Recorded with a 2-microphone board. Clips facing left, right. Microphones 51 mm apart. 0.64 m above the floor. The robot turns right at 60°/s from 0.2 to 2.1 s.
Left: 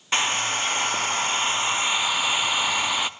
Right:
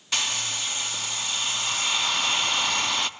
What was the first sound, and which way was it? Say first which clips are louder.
A hair dryer: left 6 dB; 45° left.